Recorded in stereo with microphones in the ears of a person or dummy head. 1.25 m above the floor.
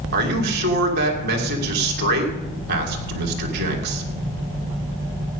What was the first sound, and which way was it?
A man speaking, 60° right (ahead or behind).